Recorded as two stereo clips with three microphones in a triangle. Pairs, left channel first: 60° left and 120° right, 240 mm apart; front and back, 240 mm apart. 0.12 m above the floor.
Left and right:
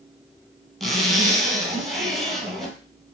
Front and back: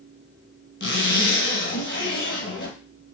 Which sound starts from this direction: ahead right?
A zipper, at 0.8 s.